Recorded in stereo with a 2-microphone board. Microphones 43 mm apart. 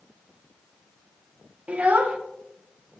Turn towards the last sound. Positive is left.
turn(degrees=-35)  # may be behind; listen again after turning